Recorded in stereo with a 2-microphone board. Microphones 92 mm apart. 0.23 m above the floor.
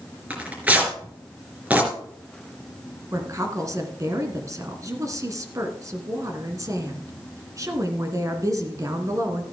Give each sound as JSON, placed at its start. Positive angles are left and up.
{"t": 0.3, "sound": "tearing paper", "side_deg": -15, "distance_m": 3.0}
{"t": 3.1, "sound": "a woman speaking", "side_deg": -35, "distance_m": 2.0}